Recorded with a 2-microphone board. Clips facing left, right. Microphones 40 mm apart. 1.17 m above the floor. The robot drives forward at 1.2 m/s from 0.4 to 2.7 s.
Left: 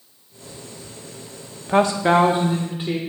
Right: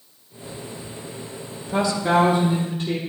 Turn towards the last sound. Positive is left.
turn(degrees=25)  # may be behind; listen again after turning